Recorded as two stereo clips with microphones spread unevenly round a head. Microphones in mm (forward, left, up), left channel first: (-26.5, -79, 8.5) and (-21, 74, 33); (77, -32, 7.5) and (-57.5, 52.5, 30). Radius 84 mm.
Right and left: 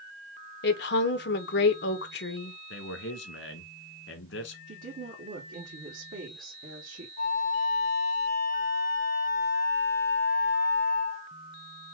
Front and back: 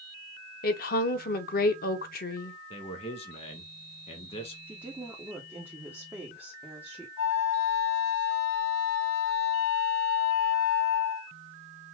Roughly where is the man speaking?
Right.